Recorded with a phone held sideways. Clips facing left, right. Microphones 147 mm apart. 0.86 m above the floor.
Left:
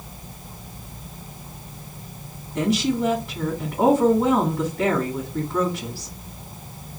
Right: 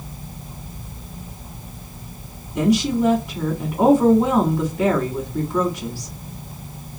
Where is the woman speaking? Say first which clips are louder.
Right 3 dB; centre (ahead or behind), 2.0 m.